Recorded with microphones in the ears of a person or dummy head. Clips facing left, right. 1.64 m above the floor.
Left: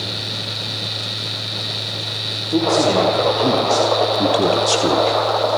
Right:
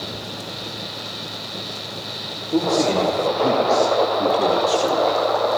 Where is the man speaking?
Centre (ahead or behind), 4 m; by 5.2 s 50° left (ahead or behind), 2.5 m.